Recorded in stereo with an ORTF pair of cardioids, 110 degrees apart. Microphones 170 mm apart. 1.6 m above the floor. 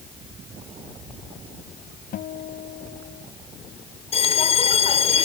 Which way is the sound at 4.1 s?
35° left.